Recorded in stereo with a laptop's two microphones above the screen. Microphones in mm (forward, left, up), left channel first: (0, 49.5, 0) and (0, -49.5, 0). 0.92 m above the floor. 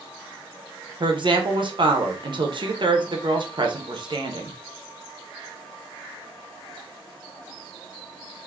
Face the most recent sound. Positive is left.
turn(degrees=-55)  # may be behind; listen again after turning